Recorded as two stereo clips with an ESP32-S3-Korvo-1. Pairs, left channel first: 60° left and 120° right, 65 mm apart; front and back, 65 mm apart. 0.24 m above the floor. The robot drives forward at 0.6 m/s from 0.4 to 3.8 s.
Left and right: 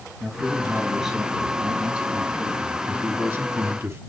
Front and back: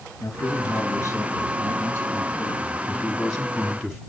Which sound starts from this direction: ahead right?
A man speaking, at 0.2 s.